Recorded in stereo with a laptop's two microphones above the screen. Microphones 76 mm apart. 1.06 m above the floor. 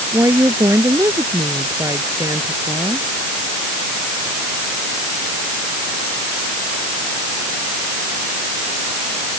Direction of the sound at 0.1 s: 45° right (ahead or behind).